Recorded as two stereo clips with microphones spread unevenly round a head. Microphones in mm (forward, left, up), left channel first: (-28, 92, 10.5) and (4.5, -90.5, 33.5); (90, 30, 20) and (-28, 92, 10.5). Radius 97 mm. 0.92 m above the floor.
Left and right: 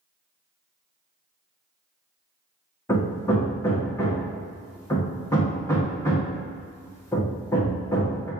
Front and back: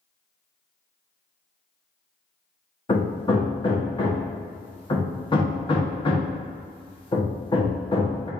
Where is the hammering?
25° left, 1.1 m.